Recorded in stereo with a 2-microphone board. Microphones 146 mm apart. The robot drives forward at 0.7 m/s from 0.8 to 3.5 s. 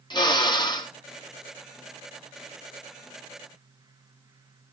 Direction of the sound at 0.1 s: 30° left (ahead or behind).